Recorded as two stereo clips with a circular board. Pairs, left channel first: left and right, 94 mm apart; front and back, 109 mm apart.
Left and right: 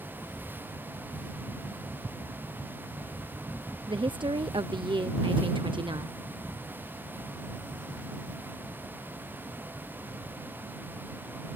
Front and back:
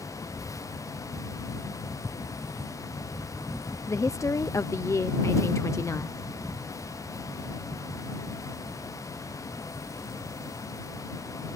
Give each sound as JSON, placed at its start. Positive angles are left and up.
{"t": 3.9, "sound": "a woman speaking", "azimuth_deg": -60}